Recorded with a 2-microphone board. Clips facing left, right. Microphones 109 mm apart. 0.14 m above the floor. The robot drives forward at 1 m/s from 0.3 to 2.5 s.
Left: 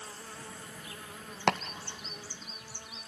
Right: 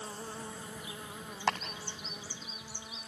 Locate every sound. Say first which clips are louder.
0.0 s an insect: right 4 dB; 25° right (ahead or behind), 1.1 m; by 3.1 s 10° right (ahead or behind), 3.5 m
1.5 s chopping: left 4 dB; 85° left, 1.2 m; by 3.1 s 50° left (ahead or behind), 1.7 m